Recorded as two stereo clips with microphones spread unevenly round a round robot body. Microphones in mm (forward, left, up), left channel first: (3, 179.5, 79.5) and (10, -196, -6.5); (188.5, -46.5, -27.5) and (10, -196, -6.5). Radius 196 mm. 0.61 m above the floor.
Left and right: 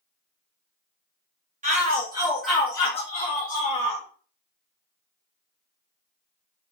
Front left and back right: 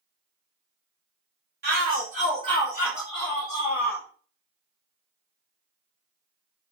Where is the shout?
125° right, 1.3 m; by 4.0 s 55° left, 1.3 m.